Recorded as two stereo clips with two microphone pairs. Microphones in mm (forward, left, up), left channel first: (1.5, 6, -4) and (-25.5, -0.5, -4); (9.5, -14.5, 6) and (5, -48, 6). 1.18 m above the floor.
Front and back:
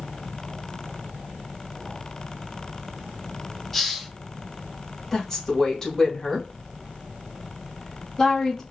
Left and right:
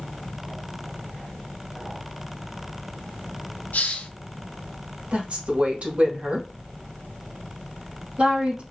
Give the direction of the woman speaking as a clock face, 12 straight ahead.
2 o'clock.